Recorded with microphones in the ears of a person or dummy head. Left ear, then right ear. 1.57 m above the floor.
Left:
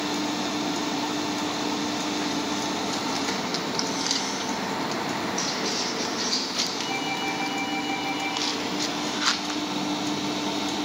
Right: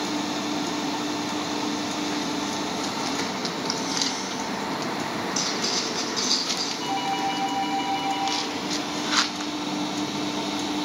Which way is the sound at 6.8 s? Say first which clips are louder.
Right 2 dB; 35° right (ahead or behind).